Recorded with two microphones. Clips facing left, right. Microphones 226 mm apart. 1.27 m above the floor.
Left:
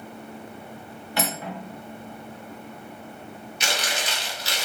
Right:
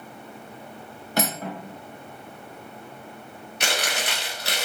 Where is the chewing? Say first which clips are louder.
Right 2 dB; 60° right (ahead or behind), 0.8 m.